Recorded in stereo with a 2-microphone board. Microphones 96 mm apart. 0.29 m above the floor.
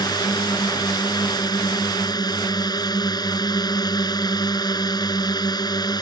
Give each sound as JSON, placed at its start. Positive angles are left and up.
{"t": 0.0, "sound": "a drone", "side_deg": 45}